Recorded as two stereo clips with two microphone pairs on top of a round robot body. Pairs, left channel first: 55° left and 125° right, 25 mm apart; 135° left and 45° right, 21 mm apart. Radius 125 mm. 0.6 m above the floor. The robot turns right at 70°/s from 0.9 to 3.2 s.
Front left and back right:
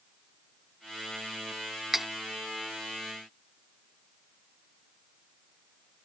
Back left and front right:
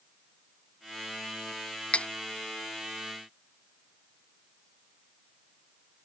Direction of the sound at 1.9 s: 150° left.